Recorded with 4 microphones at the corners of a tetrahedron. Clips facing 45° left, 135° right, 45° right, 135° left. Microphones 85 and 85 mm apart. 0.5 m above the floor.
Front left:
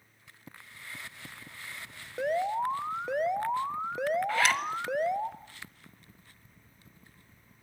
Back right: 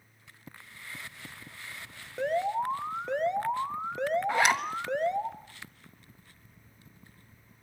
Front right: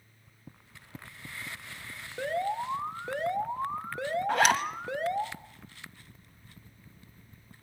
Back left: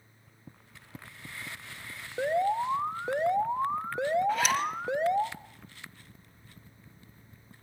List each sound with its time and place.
2.2 s an alarm: 125° left, 1.1 m
4.3 s a zipper: 65° right, 1.5 m